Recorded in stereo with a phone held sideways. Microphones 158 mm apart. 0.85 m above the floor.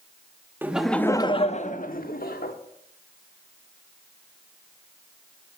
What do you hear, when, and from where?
0.6 s laughter: 15° right (ahead or behind), 1.2 m; by 2.5 s 75° left (ahead or behind), 2 m